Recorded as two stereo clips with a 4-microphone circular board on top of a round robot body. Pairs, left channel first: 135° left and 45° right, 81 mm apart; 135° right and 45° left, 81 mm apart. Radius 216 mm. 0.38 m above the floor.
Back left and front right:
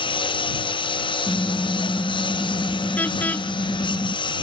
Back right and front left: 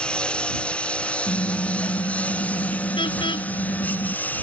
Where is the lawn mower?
145° left; by 4.4 s 155° left.